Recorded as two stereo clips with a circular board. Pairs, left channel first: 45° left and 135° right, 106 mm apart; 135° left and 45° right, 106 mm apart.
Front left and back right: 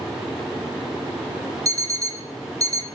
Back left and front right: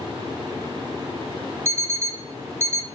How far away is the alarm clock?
About 0.8 m.